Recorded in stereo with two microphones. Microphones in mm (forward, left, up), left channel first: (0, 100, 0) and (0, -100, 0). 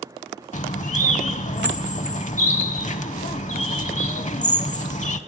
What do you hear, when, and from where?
0.5 s a bird: 40° left (ahead or behind), 0.6 m